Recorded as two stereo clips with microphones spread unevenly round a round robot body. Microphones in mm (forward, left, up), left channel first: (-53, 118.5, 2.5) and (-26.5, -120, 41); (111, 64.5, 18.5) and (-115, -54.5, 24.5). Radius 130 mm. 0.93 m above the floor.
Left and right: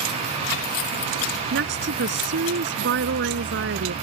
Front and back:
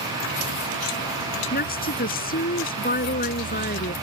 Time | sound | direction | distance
1.5 | a woman speaking | 30° right | ?